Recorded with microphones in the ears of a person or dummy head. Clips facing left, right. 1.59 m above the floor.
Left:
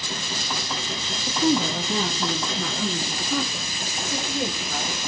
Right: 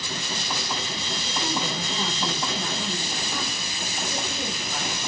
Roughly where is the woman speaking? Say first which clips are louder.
Left 9 dB; centre.